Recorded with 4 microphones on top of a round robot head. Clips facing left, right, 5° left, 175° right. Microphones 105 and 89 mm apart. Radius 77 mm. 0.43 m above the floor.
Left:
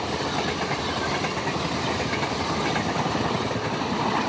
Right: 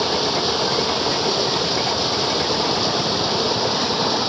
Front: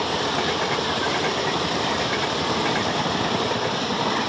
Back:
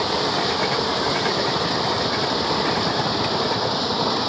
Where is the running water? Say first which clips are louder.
Right 5 dB, back 2 dB; 95° right.